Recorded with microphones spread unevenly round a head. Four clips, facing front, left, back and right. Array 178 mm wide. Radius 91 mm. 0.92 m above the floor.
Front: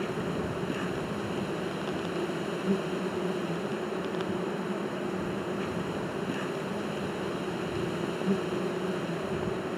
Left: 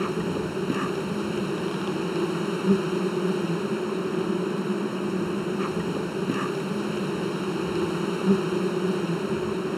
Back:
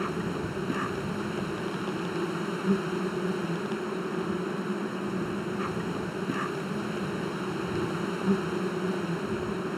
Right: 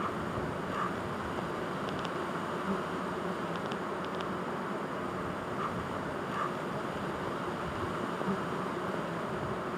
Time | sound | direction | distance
0.0 | an insect | 105° left | ?